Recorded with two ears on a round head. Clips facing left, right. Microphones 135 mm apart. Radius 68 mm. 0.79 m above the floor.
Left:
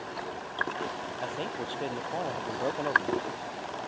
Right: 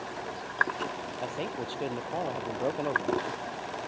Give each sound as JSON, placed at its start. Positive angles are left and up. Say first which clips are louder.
{"t": 1.2, "sound": "a man speaking", "louder": "right 1 dB", "side_deg": -5}